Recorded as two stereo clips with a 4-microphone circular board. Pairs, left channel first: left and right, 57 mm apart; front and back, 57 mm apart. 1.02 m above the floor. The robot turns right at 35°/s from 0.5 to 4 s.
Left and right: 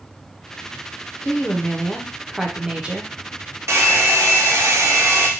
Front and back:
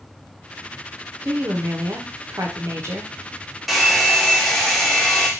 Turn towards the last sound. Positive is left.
turn(degrees=-80)